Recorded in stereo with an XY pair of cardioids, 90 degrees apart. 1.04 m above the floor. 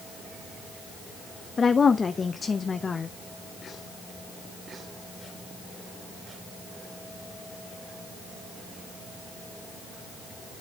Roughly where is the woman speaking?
Ahead left.